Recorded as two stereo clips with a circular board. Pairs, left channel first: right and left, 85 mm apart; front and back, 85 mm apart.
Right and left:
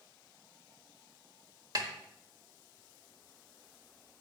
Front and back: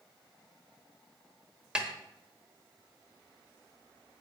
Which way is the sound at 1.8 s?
105° left.